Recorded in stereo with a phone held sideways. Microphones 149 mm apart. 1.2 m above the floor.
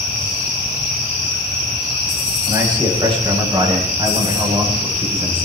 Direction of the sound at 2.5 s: 35° right (ahead or behind).